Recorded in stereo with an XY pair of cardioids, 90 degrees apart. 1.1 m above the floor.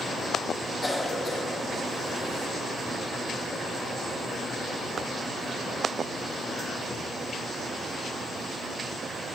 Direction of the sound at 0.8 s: 20° left.